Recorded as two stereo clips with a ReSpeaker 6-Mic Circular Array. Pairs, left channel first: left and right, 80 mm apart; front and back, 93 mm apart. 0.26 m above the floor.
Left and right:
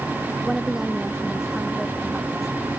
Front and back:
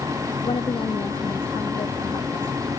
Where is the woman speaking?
5° right.